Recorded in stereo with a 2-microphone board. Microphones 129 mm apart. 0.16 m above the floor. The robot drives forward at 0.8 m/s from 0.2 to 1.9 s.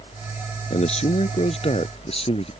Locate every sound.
0.7 s a man speaking: 55° left (ahead or behind); by 2.5 s 50° left (ahead or behind)